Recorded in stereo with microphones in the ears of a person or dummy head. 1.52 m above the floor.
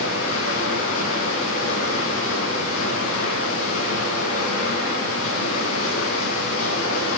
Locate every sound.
0.0 s running water: 80° left, 6.5 m